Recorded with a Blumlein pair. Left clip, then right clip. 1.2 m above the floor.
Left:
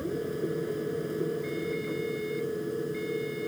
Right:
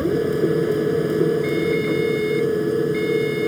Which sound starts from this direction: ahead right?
A machine running, at 0.0 s.